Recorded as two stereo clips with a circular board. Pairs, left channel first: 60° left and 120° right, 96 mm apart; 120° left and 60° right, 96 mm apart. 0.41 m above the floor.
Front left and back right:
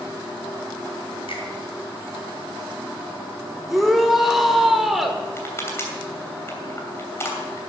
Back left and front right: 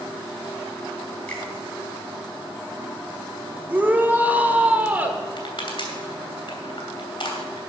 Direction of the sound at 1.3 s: 45° left.